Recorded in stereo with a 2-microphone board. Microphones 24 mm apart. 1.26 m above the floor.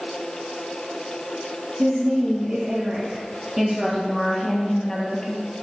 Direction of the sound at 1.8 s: 60° right (ahead or behind).